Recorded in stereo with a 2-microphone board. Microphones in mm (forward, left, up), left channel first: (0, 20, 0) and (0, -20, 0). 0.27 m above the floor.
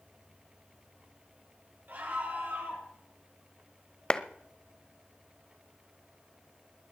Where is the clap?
20° left (ahead or behind), 0.7 m.